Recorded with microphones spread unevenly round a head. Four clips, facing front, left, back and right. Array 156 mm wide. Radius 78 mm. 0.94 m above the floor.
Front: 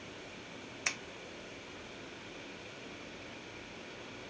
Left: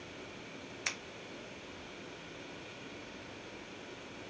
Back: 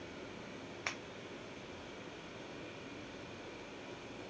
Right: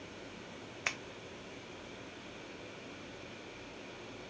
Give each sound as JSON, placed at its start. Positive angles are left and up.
{"t": 0.9, "sound": "scissors", "azimuth_deg": -105, "distance_m": 0.6}